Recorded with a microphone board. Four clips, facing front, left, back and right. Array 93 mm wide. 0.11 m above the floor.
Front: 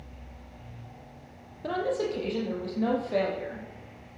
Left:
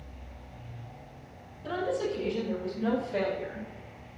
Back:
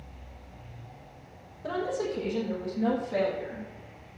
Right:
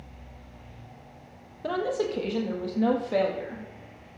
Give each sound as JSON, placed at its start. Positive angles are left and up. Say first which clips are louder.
{"t": 1.6, "sound": "a woman speaking", "louder": "right 3 dB, front 2 dB", "azimuth_deg": -70, "distance_m": 4.0}